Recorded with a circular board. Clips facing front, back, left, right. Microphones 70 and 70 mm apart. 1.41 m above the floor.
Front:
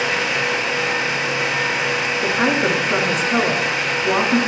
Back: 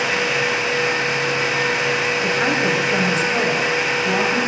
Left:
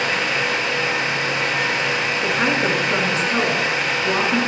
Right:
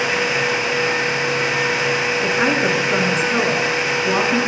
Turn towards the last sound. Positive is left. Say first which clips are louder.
# front 3 dB, right 1 dB
turn(degrees=0)